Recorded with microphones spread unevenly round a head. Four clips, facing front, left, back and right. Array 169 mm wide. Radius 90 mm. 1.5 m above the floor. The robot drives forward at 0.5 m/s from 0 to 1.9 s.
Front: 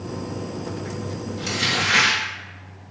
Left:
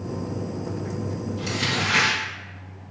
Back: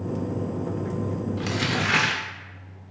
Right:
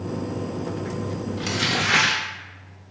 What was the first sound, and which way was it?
Crumpling, 110° right.